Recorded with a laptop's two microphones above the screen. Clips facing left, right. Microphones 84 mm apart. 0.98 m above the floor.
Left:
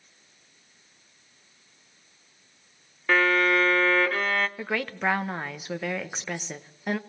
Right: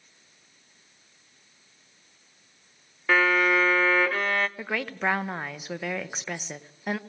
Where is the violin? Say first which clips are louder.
Even; 5° right (ahead or behind), 0.8 m.